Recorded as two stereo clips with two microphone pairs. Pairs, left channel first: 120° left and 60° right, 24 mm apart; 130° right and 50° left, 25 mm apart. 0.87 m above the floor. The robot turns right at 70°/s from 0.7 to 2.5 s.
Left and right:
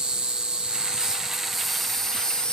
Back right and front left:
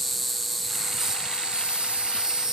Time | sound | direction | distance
0.0 | an insect | 40° right | 0.9 m